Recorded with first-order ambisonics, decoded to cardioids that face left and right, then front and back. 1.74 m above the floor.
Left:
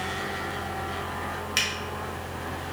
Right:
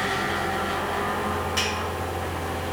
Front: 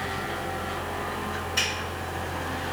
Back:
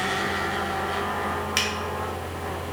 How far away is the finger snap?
About 0.9 m.